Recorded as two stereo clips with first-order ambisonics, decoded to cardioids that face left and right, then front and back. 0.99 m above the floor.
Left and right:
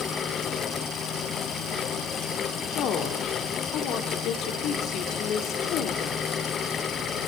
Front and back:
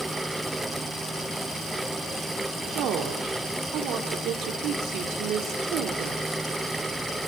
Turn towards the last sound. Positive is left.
turn(degrees=135)